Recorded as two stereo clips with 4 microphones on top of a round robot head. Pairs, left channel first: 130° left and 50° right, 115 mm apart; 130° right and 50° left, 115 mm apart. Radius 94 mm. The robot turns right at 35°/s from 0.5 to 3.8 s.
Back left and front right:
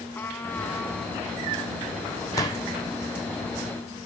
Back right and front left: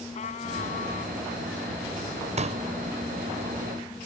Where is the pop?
70° left; by 2.6 s 80° left.